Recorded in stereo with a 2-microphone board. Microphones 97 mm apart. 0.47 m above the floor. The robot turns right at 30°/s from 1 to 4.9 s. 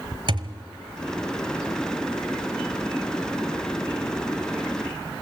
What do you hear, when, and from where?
0.3 s a thud: 50° right (ahead or behind), 1.1 m